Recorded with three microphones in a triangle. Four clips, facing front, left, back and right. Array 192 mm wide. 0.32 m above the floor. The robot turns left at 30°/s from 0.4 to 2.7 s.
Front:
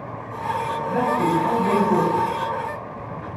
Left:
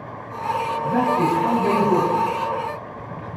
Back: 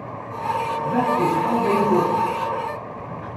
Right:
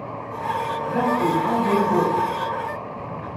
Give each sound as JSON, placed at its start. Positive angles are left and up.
{"t": 0.8, "sound": "a man speaking", "azimuth_deg": 125, "distance_m": 2.5}